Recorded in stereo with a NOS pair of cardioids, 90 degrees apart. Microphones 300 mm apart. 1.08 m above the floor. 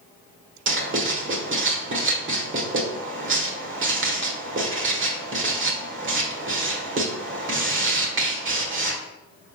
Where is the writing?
45° right, 1.6 m.